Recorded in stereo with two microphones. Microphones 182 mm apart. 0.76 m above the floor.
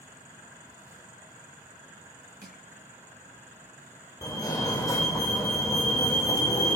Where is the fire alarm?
20° left (ahead or behind), 1.8 m.